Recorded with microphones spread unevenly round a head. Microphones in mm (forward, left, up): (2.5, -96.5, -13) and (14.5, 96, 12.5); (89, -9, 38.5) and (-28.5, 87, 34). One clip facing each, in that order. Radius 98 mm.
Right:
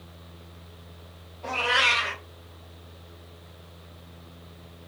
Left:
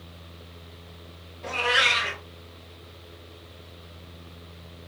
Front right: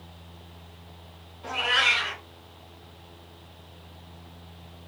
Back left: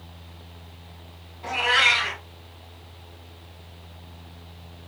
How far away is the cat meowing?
About 2.5 m.